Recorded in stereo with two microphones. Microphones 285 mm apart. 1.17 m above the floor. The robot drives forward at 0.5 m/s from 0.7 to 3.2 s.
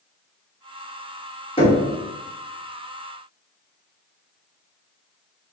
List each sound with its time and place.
1.6 s knocking: 20° left (ahead or behind), 1.0 m; by 1.8 s 15° left (ahead or behind), 1.1 m